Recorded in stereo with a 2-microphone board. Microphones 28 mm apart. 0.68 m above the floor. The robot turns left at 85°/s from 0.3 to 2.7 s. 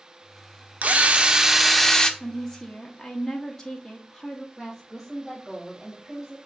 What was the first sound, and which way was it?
A drill, 100° right.